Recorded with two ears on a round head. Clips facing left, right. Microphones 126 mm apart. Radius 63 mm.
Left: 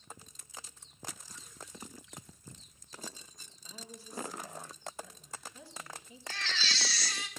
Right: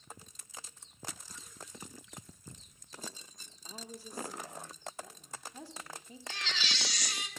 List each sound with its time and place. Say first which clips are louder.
3.6 s a woman speaking: right 3 dB; 35° right (ahead or behind), 3.5 m
6.3 s a baby crying: left 1 dB; 15° right (ahead or behind), 3 m